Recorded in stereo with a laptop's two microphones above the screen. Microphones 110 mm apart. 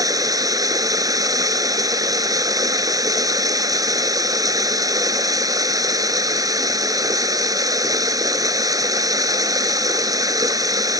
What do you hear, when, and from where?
0.0 s running water: 35° right (ahead or behind)